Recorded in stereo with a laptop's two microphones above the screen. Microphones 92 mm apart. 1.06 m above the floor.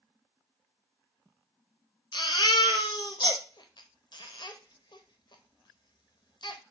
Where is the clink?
No clink in this recording.